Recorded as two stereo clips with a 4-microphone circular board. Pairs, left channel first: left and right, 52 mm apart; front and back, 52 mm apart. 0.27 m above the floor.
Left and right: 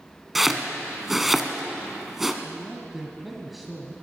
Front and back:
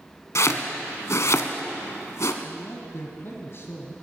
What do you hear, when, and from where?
0.3 s chopping: 5° right, 0.9 m
2.4 s a man speaking: straight ahead, 1.6 m